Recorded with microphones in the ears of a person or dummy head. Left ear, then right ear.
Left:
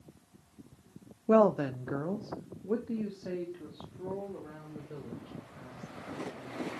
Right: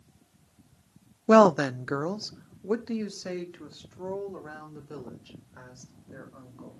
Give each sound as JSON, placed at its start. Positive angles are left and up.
{"t": 1.3, "sound": "a woman speaking", "side_deg": -35, "distance_m": 0.5}